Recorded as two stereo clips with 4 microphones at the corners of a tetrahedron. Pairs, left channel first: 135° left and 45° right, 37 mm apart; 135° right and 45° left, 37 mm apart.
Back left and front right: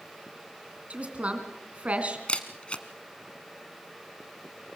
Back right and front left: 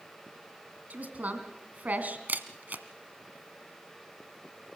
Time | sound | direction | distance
0.9 | a woman speaking | 5° left | 2.5 m
2.3 | a camera shutter | 80° left | 1.1 m